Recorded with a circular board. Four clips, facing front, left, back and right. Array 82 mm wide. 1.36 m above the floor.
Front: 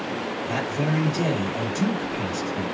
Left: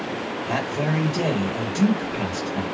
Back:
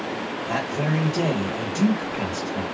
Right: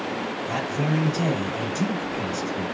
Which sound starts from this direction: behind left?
A man speaking, at 0.5 s.